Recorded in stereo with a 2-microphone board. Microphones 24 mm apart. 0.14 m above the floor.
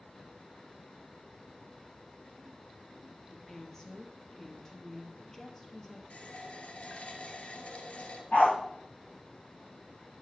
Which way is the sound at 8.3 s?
70° left (ahead or behind).